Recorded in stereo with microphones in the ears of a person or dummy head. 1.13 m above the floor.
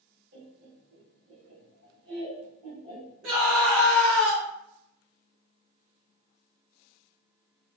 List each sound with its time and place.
0.3 s laughter: 50° right (ahead or behind), 1.3 m; by 3.4 s 25° right (ahead or behind), 1.7 m
3.2 s a scream: 55° right (ahead or behind), 1.1 m